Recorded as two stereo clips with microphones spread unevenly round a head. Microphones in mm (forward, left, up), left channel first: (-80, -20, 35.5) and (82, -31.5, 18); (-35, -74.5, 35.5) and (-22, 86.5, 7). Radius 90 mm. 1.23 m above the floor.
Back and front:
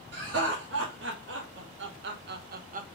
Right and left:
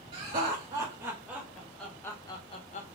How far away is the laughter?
About 1.5 m.